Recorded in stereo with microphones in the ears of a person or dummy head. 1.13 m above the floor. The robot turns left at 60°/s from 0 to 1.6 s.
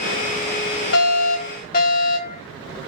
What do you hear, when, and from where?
0.9 s a fire alarm: 95° left, 4.5 m; by 2.4 s 55° left, 4.5 m